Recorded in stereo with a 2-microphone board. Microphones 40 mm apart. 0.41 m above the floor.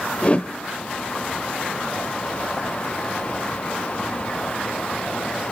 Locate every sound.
0.2 s a whoosh: 35° left (ahead or behind), 0.7 m